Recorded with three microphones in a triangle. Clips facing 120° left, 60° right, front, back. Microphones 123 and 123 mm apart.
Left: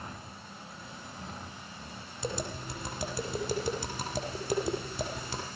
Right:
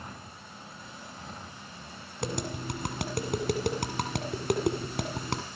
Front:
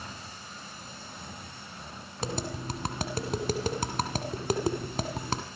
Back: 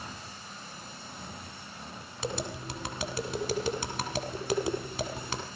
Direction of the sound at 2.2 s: 40° right.